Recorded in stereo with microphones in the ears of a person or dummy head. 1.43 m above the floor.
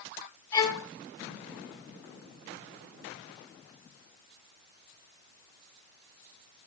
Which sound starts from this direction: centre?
A violin, at 0.5 s.